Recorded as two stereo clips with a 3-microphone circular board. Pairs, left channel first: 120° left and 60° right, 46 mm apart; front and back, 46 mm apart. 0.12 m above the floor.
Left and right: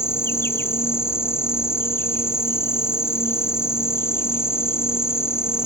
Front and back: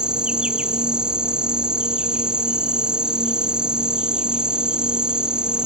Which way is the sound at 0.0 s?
110° left.